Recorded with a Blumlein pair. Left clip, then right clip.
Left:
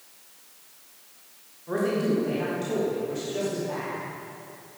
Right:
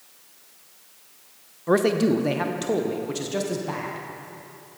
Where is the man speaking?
35° right, 0.8 m.